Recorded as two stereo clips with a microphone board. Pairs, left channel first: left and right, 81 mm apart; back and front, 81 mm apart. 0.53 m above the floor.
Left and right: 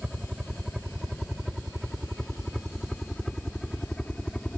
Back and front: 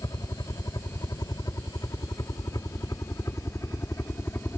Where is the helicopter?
170° right; by 4.6 s 155° left.